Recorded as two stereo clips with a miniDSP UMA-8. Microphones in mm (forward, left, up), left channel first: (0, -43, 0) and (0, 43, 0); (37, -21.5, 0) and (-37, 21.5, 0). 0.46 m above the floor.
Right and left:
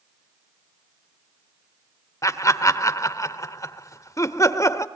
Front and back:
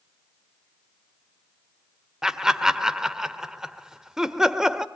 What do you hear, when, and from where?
2.2 s laughter: 130° right, 1.3 m